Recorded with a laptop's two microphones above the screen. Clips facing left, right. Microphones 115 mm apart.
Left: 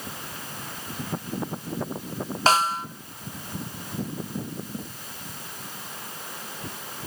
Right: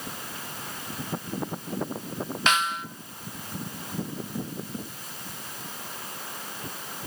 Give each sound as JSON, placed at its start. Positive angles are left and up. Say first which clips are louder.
{"t": 2.5, "sound": "a snare drum", "louder": "left 5 dB", "side_deg": 35, "distance_m": 0.8}